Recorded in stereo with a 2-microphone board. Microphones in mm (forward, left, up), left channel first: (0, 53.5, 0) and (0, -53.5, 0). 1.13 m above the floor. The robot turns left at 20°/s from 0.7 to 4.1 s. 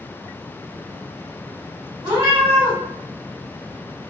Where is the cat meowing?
50° right (ahead or behind), 1.6 m; by 2.8 s 60° right (ahead or behind), 1.6 m.